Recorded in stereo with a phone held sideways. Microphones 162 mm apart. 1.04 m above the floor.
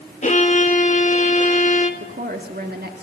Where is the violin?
45° left (ahead or behind), 1.6 m.